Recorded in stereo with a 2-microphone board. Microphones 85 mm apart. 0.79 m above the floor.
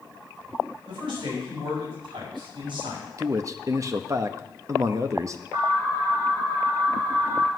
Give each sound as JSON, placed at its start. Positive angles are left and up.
{"t": 0.9, "sound": "a man speaking", "side_deg": -80, "distance_m": 5.5}
{"t": 3.2, "sound": "a man speaking", "side_deg": -40, "distance_m": 0.7}
{"t": 5.5, "sound": "an alarm", "side_deg": -70, "distance_m": 6.0}